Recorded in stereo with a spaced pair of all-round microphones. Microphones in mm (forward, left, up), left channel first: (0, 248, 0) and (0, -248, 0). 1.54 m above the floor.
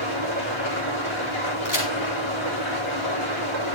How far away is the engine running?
About 4.5 m.